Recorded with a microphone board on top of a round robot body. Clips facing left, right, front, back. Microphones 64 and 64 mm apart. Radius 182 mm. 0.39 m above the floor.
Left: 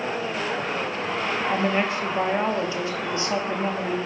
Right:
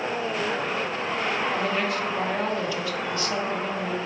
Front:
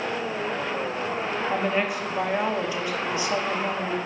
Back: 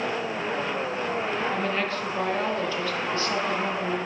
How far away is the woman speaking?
About 1.2 m.